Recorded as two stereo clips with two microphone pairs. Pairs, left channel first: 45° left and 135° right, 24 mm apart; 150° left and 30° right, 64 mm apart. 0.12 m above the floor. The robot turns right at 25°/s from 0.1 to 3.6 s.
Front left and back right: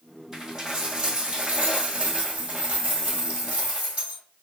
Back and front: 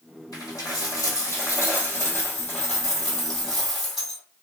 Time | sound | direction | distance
0.3 | a dropped coin | 155° left | 1.8 m